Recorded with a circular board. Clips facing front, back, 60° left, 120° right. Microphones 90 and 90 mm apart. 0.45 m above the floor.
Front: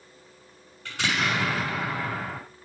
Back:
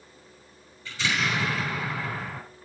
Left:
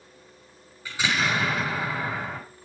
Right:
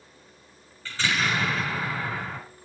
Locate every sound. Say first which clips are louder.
0.8 s an explosion: front 1 dB, left 1 dB; 15° right, 5.5 m